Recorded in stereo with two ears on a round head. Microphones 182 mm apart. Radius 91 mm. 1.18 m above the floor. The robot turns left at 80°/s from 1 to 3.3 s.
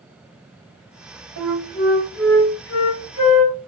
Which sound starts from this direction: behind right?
A flute, at 1.4 s.